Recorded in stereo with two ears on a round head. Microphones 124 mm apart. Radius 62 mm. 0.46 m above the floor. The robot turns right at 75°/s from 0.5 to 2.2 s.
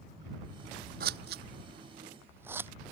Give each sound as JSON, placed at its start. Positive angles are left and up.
{"t": 1.0, "sound": "scissors", "side_deg": -75}